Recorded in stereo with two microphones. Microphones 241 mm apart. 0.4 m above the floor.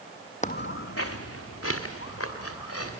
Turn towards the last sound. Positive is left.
turn(degrees=80)